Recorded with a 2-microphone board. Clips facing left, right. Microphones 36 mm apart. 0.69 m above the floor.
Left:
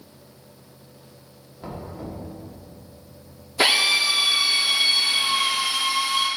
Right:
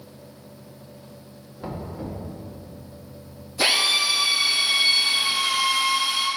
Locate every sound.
1.6 s knocking: 10° right (ahead or behind), 1.4 m
3.6 s a drill: 50° left (ahead or behind), 1.6 m